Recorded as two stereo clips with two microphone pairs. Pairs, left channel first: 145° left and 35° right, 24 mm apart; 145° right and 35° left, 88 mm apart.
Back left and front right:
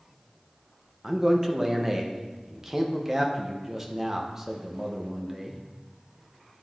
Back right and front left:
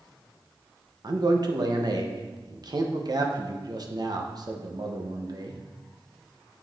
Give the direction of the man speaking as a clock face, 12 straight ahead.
11 o'clock.